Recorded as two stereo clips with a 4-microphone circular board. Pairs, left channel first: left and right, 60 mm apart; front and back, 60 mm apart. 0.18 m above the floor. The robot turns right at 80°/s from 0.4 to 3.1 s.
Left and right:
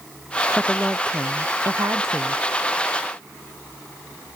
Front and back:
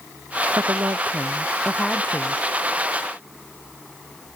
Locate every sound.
0.6 s a woman speaking: straight behind; by 2.4 s 30° right